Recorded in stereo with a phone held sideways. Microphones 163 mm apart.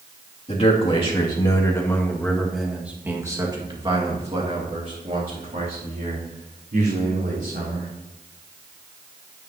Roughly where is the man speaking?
Left.